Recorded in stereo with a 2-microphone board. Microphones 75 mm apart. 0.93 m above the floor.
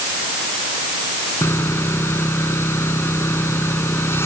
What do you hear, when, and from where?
1.4 s sawing: 30° left (ahead or behind)